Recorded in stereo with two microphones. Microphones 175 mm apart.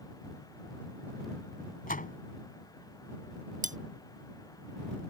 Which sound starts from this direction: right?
Cutlery clinking, at 3.6 s.